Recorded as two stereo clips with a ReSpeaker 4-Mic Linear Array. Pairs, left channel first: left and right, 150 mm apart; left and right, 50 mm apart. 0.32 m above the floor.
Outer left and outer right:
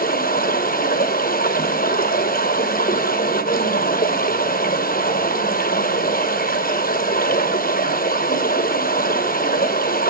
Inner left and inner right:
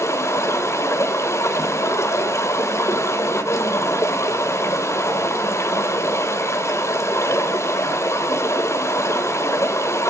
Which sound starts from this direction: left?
Running water, at 0.0 s.